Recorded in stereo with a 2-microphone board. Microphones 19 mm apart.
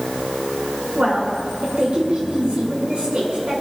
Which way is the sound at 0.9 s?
90° right.